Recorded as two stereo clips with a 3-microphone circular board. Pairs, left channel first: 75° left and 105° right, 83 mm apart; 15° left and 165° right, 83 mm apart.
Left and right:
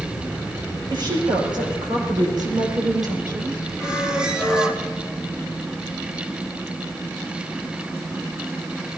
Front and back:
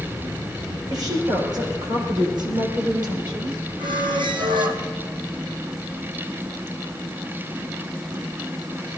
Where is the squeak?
175° left, 1.7 m.